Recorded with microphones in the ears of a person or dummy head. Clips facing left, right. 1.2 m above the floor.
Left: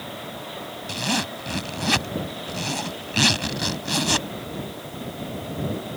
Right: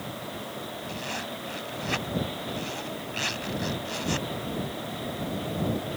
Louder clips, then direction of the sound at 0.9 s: Left 12 dB; 75° left (ahead or behind).